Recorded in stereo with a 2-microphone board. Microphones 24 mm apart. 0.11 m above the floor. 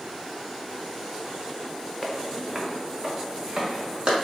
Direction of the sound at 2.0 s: Centre (ahead or behind).